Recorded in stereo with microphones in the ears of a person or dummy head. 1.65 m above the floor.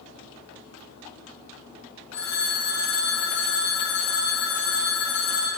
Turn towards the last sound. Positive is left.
turn(degrees=10)  # may be behind; listen again after turning